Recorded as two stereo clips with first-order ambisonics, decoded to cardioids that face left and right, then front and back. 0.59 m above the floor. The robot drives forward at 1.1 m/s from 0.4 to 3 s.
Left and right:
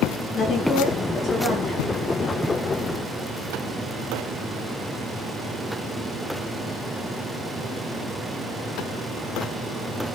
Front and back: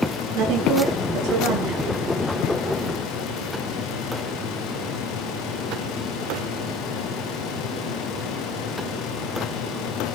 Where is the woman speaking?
155° left, 8.5 m.